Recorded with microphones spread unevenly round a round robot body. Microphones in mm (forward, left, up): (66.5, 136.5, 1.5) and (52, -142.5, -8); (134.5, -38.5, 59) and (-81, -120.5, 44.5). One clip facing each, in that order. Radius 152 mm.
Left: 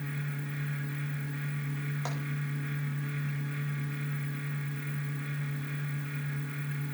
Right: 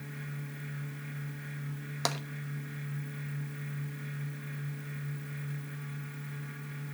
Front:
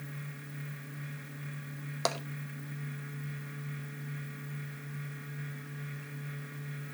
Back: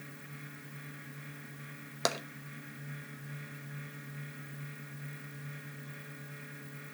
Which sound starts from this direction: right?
Tapping, at 2.0 s.